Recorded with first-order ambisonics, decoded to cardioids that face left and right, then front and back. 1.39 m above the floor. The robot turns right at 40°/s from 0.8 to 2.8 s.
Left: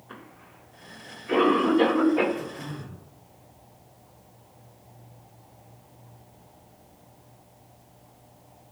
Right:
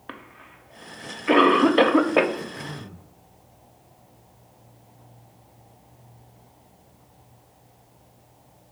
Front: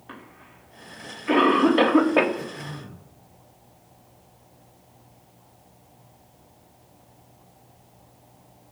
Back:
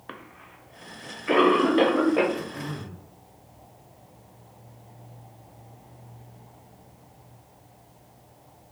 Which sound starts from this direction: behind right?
A cough, at 0.1 s.